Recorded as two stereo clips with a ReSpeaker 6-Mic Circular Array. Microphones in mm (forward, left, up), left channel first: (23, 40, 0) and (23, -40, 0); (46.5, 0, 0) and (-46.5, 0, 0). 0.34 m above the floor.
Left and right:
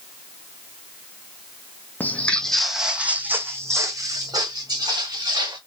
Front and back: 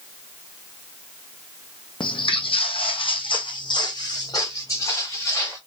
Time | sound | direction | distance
2.0 | footsteps | 25° left | 1.0 m